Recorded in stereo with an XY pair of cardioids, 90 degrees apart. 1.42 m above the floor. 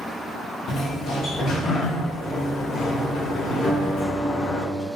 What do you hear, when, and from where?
0.7 s a sliding door: 65° left, 0.6 m
3.6 s a guitar: 35° left, 1.3 m